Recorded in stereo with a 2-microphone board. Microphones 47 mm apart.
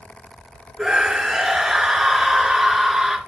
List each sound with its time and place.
0.8 s a scream: 15° right (ahead or behind), 1.6 m